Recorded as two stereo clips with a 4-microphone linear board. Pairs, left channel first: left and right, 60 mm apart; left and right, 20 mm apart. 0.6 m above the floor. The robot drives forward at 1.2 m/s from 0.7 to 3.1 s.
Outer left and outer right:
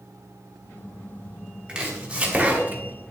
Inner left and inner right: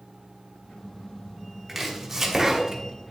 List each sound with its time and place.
1.7 s chopping: 15° right (ahead or behind), 2.5 m; by 3.1 s 40° right (ahead or behind), 1.0 m